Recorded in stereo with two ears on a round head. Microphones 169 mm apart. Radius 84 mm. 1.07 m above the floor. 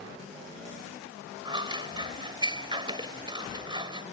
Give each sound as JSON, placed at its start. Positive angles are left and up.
{"t": 1.4, "sound": "scissors", "side_deg": -25}